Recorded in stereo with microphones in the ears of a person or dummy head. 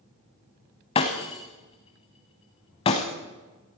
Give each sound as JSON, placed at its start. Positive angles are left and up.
{"t": 0.9, "sound": "breaking glass", "side_deg": 25, "distance_m": 1.2}